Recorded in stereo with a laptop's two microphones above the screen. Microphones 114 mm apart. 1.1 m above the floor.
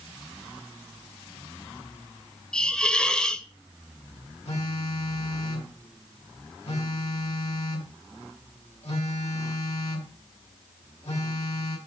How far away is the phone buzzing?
About 2 m.